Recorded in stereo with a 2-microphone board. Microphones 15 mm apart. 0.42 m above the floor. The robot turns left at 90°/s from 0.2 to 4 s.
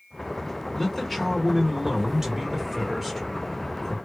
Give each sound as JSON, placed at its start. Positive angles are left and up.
{"t": 0.8, "sound": "a man speaking", "azimuth_deg": 45, "distance_m": 0.9}